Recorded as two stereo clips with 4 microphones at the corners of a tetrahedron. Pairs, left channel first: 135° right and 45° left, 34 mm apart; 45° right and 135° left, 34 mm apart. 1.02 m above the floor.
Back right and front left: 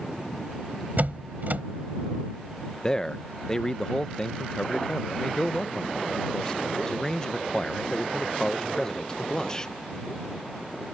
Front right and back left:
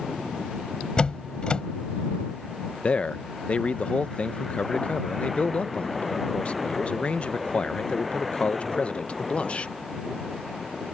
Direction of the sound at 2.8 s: 75° right.